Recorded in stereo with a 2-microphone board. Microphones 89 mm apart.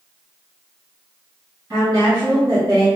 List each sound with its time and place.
1.7 s a woman speaking: 45° right (ahead or behind), 1.1 m